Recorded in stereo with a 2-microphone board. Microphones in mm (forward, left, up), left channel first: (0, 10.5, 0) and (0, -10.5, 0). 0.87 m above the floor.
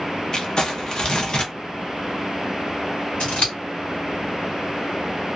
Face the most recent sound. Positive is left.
turn(degrees=55)  # may be behind; listen again after turning